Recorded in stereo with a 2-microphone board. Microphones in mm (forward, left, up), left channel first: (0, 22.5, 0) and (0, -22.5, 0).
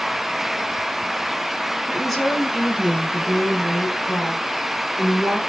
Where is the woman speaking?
5° right (ahead or behind), 5.5 m; by 5.4 s 20° left (ahead or behind), 6.5 m.